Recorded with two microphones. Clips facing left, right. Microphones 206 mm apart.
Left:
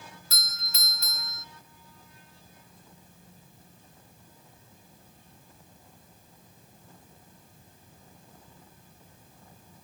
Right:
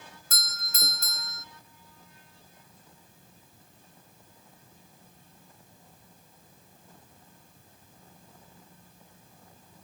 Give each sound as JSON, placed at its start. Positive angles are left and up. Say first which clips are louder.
{"t": 0.3, "sound": "a doorbell", "louder": "right 1 dB", "side_deg": -50, "distance_m": 0.6}